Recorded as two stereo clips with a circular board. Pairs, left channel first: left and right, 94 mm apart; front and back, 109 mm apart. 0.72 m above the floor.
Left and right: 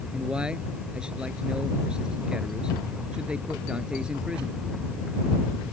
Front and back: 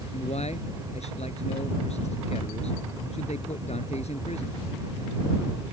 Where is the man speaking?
10° right.